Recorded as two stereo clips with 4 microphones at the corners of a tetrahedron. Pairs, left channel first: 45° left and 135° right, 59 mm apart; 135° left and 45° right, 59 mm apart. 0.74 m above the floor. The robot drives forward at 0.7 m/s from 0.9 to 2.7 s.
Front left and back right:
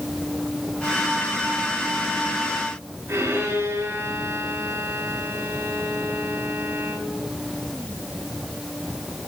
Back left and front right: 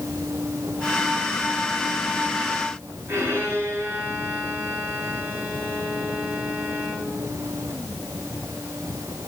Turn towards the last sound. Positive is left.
turn(degrees=-100)